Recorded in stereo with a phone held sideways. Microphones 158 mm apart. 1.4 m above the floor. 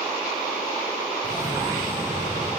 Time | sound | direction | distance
1.2 | a cough | 20° right (ahead or behind) | 1.4 m